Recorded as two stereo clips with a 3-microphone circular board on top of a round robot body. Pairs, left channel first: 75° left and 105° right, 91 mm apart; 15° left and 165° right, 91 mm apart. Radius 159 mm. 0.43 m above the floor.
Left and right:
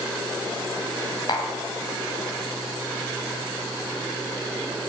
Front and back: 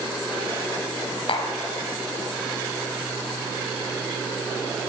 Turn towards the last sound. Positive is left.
turn(degrees=35)